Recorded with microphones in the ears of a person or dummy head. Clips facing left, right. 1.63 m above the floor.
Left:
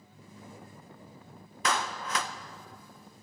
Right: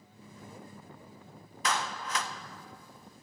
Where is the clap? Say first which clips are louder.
Left 2 dB; 55° left (ahead or behind), 0.5 m.